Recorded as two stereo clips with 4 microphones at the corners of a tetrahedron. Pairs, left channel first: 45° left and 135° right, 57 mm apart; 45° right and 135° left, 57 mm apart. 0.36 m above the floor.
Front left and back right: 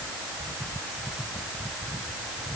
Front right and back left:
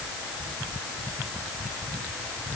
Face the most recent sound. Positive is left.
No sound to turn to.